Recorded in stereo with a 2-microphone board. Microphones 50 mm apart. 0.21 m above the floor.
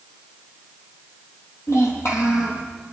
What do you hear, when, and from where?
1.7 s a child speaking: 80° left, 4.5 m